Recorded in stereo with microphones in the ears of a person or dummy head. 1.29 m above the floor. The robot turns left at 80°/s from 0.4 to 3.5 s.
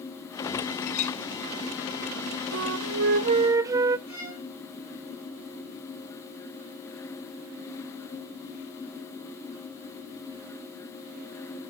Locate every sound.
0.8 s a clink: 55° left (ahead or behind), 0.9 m; by 1.2 s 30° left (ahead or behind), 0.9 m
2.5 s a flute: 80° right, 0.6 m; by 4.0 s 160° right, 0.6 m
4.1 s a violin: 75° left (ahead or behind), 8.5 m